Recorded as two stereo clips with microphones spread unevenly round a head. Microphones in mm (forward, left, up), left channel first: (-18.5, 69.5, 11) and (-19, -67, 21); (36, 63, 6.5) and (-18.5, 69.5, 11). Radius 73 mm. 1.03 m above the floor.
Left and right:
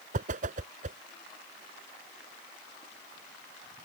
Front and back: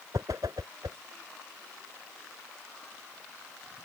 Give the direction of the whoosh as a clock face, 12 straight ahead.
4 o'clock.